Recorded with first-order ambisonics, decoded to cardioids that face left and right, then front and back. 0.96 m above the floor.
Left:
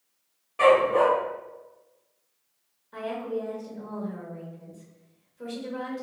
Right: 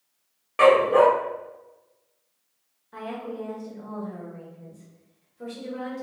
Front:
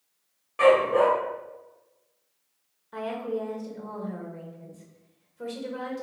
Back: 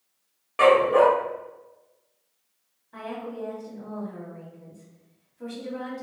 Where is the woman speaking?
Straight ahead, 1.3 m.